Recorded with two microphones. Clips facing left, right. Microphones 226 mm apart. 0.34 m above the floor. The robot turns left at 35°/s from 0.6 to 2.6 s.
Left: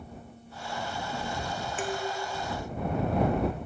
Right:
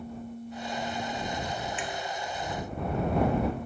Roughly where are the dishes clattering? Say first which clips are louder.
Left 4 dB; left.